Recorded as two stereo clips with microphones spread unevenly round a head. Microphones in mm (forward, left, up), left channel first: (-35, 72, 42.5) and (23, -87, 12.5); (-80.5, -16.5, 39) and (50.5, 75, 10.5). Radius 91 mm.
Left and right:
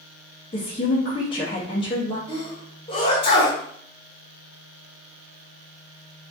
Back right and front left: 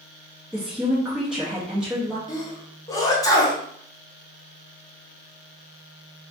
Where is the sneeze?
155° left, 1.0 m.